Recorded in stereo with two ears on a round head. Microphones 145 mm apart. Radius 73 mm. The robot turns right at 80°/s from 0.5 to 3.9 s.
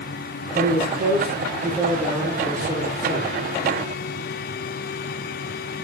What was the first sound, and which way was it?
A man speaking, 50° left.